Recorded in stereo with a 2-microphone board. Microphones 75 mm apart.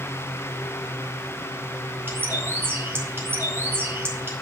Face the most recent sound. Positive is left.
turn(degrees=-30)  # may be behind; listen again after turning